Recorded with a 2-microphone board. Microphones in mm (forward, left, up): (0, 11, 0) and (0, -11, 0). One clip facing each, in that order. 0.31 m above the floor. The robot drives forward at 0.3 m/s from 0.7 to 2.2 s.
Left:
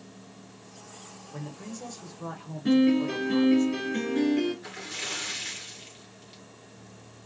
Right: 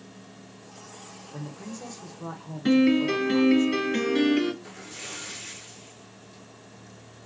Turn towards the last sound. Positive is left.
turn(degrees=55)  # may be behind; listen again after turning